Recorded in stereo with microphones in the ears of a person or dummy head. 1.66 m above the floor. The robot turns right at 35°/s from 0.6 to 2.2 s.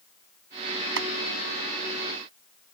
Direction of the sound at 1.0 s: 70° right (ahead or behind).